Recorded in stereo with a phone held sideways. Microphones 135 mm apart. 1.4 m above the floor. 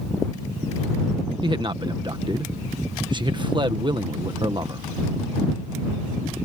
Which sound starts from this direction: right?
A man speaking, at 1.4 s.